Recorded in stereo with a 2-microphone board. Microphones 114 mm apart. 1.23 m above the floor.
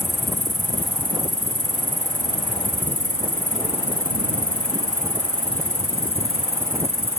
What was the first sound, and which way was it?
An insect, 60° right (ahead or behind).